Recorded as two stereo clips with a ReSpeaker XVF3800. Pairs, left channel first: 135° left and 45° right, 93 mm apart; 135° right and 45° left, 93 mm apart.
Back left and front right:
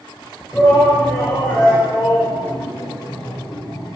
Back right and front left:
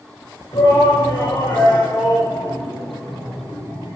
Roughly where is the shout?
Behind.